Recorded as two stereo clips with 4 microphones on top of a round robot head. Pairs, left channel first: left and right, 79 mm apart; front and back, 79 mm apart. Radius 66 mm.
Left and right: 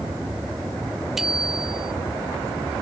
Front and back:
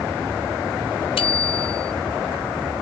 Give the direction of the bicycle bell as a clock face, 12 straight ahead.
12 o'clock.